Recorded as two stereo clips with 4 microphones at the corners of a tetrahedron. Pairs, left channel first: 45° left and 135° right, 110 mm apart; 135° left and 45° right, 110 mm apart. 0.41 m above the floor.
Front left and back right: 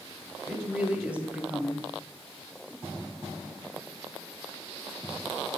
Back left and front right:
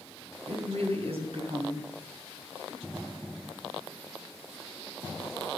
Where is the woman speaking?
55° right, 2 m.